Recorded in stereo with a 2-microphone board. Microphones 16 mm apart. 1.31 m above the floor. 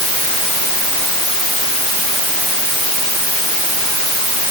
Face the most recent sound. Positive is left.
No sound to turn to.